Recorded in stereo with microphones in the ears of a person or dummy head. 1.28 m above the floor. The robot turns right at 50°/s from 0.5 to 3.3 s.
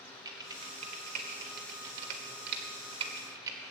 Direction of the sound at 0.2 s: 20° right (ahead or behind).